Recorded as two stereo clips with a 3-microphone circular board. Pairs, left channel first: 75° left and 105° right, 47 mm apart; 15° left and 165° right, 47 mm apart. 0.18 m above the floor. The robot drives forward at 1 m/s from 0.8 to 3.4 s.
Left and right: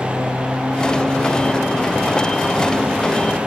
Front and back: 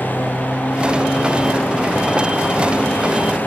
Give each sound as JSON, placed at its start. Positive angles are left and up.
{"t": 0.0, "sound": "a lawn mower", "azimuth_deg": -35}